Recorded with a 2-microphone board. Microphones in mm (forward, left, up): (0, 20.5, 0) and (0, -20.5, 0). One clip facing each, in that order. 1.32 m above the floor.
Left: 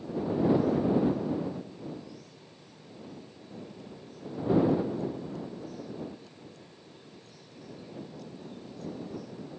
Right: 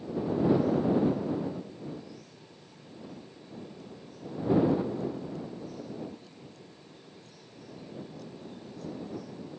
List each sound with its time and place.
Only background noise.